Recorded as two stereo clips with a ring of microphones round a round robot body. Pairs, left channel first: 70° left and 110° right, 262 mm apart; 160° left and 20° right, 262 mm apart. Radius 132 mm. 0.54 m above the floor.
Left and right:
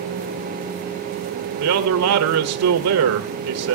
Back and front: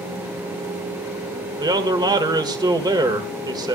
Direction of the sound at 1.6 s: 95° right.